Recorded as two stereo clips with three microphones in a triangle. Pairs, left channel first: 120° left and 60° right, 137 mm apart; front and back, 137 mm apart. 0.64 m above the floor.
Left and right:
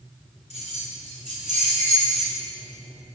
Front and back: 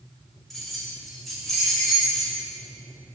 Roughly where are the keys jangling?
Right.